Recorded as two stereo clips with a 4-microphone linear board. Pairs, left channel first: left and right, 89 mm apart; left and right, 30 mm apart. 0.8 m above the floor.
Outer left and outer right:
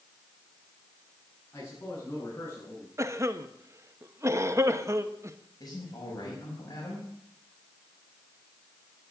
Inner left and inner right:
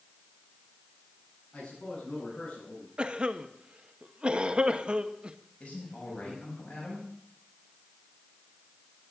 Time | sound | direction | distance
1.5 | a man speaking | 25° left (ahead or behind) | 8 m
3.0 | a cough | 35° right (ahead or behind) | 1.1 m
5.6 | a man speaking | 45° left (ahead or behind) | 5.5 m